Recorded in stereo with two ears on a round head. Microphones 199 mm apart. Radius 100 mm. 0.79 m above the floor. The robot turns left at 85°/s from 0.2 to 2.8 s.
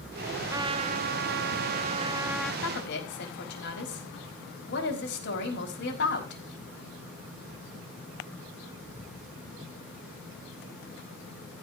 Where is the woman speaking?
65° left (ahead or behind), 5 m; by 6.4 s 50° left (ahead or behind), 5 m.